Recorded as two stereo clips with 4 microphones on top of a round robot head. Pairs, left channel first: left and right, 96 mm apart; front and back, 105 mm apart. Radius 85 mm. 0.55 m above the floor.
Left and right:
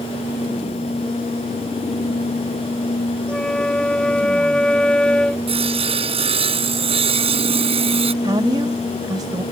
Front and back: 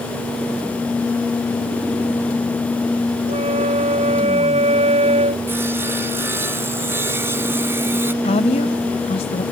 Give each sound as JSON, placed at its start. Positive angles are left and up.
{"t": 3.3, "sound": "a flute", "azimuth_deg": 170}
{"t": 5.5, "sound": "sawing", "azimuth_deg": -105}
{"t": 8.2, "sound": "a woman speaking", "azimuth_deg": -35}